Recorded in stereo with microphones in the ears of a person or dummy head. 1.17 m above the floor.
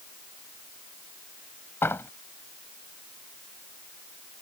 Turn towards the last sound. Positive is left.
turn(degrees=10)  # may be behind; listen again after turning